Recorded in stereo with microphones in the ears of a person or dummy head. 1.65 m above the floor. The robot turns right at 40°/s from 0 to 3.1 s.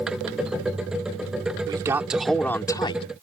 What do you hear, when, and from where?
1.7 s a man speaking: 20° right; by 3.0 s 35° left